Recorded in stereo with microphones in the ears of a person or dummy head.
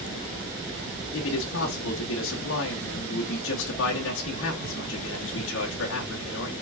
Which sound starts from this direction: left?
A man speaking, at 1.1 s.